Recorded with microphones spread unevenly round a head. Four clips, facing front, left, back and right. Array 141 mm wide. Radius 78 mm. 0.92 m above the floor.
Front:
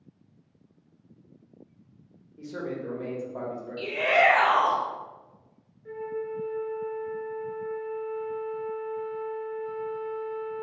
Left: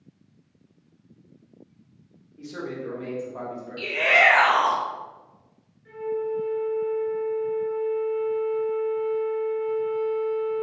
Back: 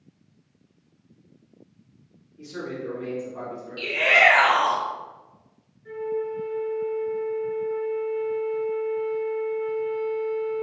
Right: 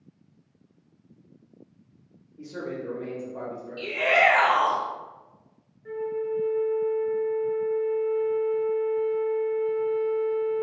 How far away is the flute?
About 0.7 m.